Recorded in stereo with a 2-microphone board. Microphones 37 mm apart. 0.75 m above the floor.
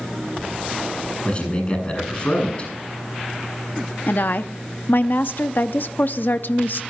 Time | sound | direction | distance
1.2 | a man speaking | 30° left (ahead or behind) | 7.5 m
4.1 | a woman speaking | 55° left (ahead or behind) | 0.7 m